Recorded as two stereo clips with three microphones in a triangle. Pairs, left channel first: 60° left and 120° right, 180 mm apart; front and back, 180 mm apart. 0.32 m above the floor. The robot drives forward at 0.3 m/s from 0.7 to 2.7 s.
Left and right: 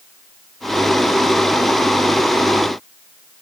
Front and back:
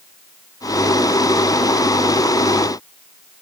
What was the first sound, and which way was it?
Only background noise.